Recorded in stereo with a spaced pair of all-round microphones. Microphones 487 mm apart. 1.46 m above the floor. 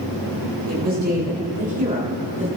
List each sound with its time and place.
0.7 s a woman speaking: 20° right (ahead or behind), 8 m; by 2.5 s 15° right (ahead or behind), 8.5 m